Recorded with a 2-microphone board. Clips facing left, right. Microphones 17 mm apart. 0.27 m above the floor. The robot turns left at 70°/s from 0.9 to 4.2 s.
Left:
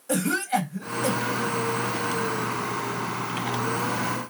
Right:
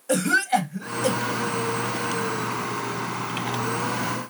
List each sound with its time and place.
0.1 s a cough: 35° right (ahead or behind), 1.8 m